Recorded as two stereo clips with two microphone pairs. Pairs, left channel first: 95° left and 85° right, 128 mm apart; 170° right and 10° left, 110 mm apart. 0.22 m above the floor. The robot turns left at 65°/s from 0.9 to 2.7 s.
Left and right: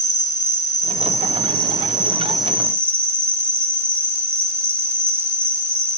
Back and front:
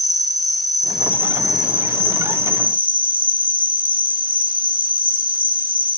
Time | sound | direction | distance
0.0 | an insect | 100° left | 1.0 m